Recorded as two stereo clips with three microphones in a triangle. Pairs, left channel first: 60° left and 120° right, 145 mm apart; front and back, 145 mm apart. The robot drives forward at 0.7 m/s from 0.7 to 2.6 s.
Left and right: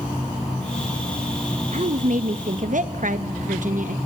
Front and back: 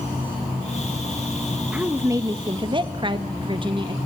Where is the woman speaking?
100° right, 1.1 m; by 4.0 s 130° right, 1.3 m.